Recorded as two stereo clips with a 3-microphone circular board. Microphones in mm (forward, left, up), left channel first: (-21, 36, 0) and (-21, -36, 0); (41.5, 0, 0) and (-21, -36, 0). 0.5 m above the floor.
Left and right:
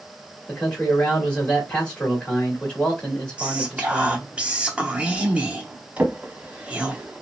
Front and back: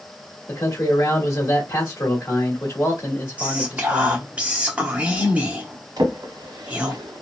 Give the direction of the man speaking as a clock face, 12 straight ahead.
11 o'clock.